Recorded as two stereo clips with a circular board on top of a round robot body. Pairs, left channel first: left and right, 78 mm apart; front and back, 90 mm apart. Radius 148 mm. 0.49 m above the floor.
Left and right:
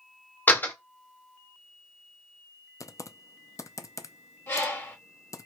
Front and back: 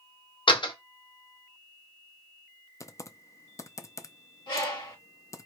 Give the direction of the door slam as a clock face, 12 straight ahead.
11 o'clock.